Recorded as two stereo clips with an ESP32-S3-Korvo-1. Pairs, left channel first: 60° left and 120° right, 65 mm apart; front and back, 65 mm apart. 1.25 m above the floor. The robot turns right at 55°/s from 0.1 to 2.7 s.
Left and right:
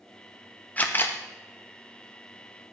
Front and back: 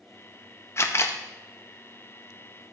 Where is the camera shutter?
5° left, 0.6 m; by 1.2 s 30° left, 0.6 m.